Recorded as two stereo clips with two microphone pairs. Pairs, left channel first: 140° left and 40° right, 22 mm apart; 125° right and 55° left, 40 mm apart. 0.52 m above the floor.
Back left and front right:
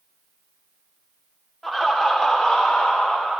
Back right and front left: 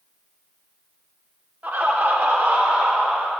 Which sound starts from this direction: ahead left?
Laughter, at 1.6 s.